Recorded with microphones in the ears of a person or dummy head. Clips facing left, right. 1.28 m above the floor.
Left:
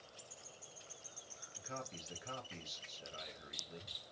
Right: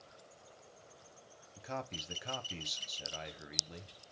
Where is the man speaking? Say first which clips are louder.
Right 6 dB; 60° right (ahead or behind), 1.0 m.